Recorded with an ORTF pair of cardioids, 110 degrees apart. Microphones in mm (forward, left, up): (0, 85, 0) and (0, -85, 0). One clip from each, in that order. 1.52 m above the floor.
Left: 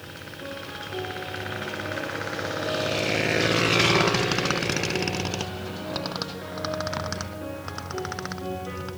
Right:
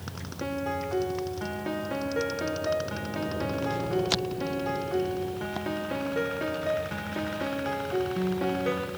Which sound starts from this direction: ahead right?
A piano, at 0.4 s.